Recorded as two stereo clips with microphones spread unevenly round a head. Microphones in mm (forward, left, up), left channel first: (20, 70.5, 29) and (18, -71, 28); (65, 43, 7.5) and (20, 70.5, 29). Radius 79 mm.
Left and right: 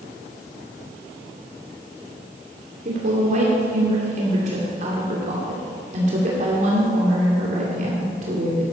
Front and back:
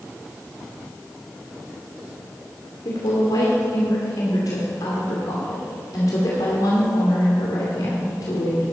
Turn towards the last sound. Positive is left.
turn(degrees=-55)